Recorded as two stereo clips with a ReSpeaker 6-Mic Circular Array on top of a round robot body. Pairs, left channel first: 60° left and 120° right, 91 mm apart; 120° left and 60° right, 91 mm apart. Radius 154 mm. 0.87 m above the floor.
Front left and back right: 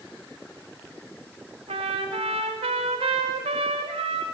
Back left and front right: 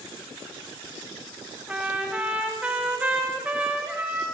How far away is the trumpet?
About 0.9 m.